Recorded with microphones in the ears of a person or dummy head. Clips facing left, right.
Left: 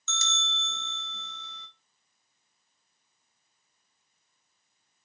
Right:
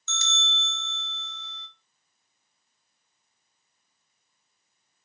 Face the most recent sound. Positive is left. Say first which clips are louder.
# even
turn(degrees=70)  # may be behind; listen again after turning